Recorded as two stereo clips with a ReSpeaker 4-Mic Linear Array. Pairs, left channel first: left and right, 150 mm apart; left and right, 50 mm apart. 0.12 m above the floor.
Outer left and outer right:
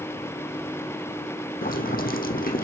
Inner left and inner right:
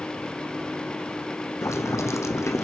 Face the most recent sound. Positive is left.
turn(degrees=75)  # may be behind; listen again after turning